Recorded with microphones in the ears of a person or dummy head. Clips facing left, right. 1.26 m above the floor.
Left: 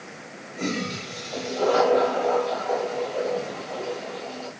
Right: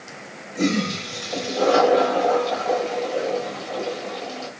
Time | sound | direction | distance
0.6 | a toilet flushing | 70° right (ahead or behind) | 6 m